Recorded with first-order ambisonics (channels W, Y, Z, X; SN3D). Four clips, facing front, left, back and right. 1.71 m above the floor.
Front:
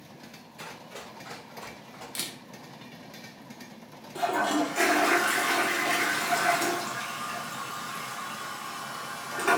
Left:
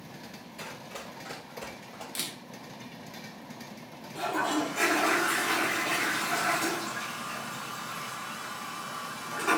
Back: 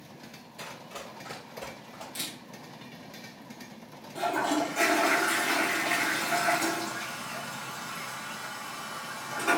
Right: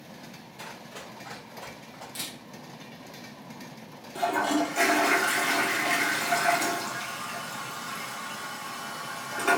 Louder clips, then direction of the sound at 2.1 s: Left 1 dB, front 1 dB; 40° left.